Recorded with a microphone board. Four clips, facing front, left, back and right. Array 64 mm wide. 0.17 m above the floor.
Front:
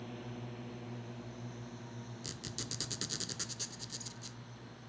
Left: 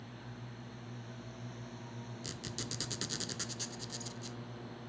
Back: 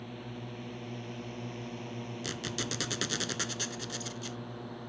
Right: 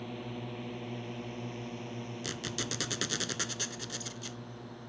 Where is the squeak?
140° right.